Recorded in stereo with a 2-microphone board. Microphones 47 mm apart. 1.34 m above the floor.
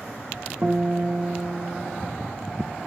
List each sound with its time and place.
0.6 s a guitar: 35° right (ahead or behind), 2 m